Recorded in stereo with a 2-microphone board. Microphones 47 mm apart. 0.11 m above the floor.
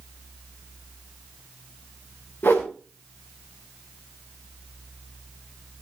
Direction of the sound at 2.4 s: 45° left (ahead or behind).